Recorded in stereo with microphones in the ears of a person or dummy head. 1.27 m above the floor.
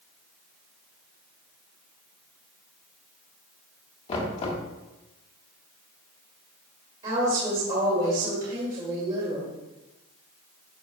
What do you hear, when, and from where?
4.1 s knocking: 40° left (ahead or behind), 1.8 m
7.0 s a woman speaking: 35° right (ahead or behind), 2.5 m